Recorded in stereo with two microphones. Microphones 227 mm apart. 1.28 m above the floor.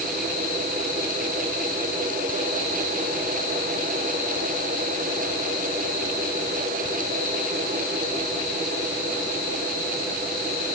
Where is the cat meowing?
I don't hear a cat meowing.